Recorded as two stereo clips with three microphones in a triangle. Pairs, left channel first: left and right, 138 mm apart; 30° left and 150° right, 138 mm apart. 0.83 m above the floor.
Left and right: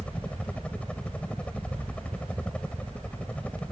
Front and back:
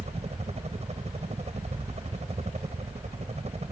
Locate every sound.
0.0 s a helicopter: 170° left